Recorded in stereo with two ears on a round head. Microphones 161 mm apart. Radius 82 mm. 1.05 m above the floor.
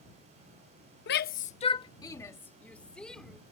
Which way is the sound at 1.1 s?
65° left (ahead or behind).